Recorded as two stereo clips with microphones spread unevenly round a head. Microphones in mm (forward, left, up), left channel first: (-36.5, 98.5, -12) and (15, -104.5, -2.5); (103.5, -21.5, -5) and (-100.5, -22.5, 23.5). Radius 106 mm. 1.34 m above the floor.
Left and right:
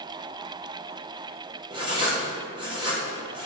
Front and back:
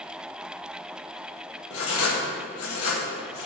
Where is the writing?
5° right, 1.3 m.